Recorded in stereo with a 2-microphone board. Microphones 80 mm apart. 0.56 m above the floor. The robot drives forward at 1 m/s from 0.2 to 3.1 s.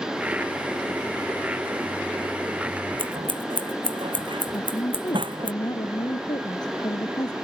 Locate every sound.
3.0 s scissors: 80° right
4.5 s a woman speaking: 55° left (ahead or behind)